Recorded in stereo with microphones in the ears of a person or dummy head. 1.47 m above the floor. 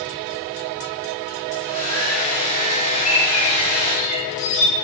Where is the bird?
40° left (ahead or behind), 5.5 m.